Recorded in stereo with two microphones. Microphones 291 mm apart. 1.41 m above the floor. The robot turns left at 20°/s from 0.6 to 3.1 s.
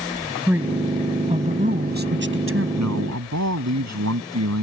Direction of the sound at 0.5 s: 5° right.